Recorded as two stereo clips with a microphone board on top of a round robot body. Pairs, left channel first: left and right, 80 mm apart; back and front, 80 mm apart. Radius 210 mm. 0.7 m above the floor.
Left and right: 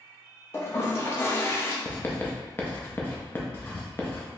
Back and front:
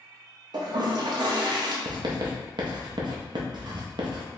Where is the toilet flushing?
30° left, 0.6 m.